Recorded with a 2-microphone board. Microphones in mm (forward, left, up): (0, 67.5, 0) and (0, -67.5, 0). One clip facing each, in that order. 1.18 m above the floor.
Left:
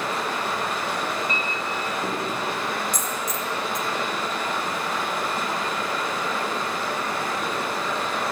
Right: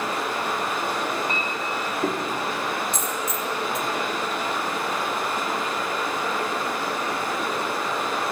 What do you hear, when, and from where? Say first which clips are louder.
0.0 s running water: even; 55° right (ahead or behind), 2.0 m
1.3 s a clink: even; 60° right (ahead or behind), 1.3 m
2.9 s a dropped coin: right 1 dB; 25° right (ahead or behind), 0.7 m